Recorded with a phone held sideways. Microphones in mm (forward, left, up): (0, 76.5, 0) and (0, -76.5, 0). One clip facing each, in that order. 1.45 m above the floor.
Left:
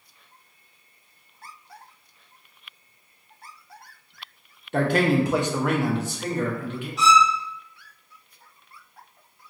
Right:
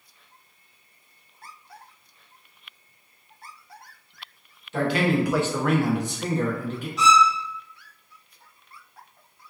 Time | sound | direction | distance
4.7 | a man speaking | 50° left (ahead or behind) | 0.6 m
7.0 | a violin | centre (ahead or behind) | 1.5 m